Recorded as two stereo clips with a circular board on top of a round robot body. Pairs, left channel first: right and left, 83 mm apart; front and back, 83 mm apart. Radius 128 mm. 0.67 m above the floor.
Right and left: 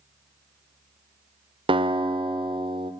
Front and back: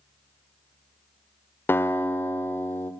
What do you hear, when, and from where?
1.7 s a guitar: 65° left, 0.8 m